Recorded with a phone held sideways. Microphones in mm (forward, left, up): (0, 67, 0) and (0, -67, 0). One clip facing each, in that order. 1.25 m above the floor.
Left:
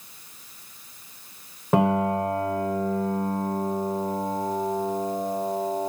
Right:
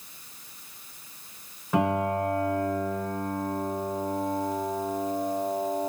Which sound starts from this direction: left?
A piano, at 1.7 s.